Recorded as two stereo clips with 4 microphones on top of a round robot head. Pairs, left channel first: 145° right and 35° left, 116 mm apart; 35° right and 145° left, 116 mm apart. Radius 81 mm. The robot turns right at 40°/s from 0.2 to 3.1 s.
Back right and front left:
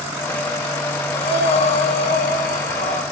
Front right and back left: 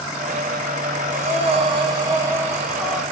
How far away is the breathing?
About 0.8 m.